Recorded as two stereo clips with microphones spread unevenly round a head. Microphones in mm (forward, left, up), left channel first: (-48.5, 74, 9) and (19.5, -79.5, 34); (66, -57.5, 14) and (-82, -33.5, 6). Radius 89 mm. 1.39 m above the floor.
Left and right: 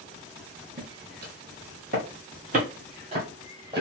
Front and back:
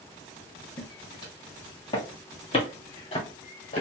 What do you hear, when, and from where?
0.8 s footsteps: 65° right, 2.5 m; by 3.8 s 15° right, 1.8 m